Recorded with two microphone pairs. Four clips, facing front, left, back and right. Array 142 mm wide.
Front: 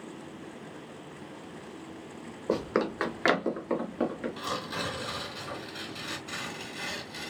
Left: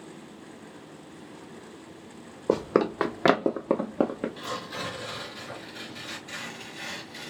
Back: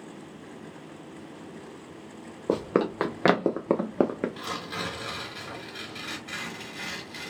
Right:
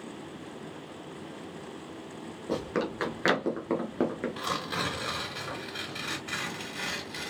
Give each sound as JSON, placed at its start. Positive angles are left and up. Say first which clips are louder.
{"t": 2.5, "sound": "running footsteps", "louder": "left 7 dB, back 3 dB", "azimuth_deg": 115, "distance_m": 1.1}
{"t": 4.4, "sound": "tearing paper", "louder": "right 2 dB, even", "azimuth_deg": -90, "distance_m": 2.5}